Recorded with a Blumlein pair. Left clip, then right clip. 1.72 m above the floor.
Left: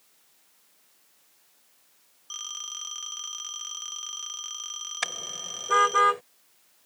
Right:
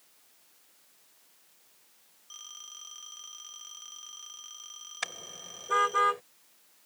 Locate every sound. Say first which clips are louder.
2.3 s a phone ringing: left 10 dB; 65° left
5.0 s a car horn: left 5 dB; 15° left